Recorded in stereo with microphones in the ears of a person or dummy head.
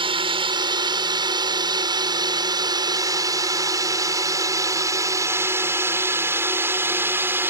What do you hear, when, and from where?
0.0 s a drone: 25° right (ahead or behind); by 7.5 s 10° right (ahead or behind)